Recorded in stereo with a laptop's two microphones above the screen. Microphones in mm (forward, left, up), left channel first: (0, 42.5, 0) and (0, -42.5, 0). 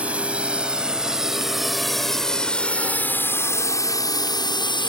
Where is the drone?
15° right (ahead or behind); by 4.9 s 65° left (ahead or behind).